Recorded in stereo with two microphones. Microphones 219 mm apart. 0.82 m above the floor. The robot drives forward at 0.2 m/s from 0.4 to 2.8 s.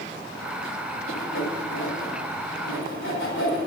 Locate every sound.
1.1 s sawing: 70° left (ahead or behind), 3 m; by 3.6 s 65° left (ahead or behind), 3 m